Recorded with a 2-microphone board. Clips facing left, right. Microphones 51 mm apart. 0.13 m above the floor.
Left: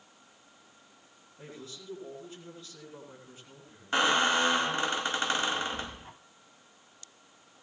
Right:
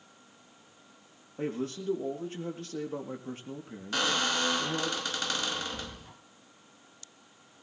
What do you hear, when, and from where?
1.4 s a man speaking: 60° right (ahead or behind), 3.5 m
3.9 s a squeak: 25° left (ahead or behind), 1.1 m